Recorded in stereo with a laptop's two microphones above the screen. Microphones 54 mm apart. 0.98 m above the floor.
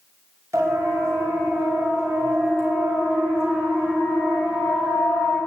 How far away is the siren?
About 6 m.